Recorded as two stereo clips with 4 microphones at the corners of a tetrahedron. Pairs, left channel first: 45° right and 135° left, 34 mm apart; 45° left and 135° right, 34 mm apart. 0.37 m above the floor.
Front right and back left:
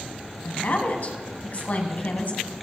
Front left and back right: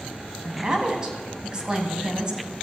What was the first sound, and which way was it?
A woman speaking, 70° right.